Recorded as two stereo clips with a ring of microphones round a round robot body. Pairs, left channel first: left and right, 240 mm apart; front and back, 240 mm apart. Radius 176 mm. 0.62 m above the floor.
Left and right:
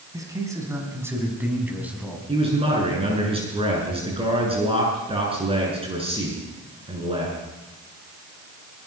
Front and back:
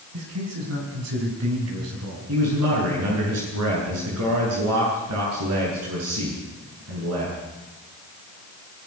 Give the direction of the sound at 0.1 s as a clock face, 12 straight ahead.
6 o'clock.